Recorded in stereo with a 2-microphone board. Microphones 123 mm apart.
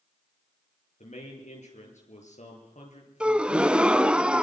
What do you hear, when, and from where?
1.0 s a man speaking: 75° left (ahead or behind), 8 m
3.2 s a gasp: 10° right (ahead or behind), 0.7 m